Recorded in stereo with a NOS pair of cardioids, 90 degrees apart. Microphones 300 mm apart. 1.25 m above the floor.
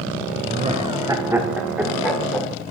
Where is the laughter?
25° right, 0.8 m; by 2.6 s 5° left, 1.8 m.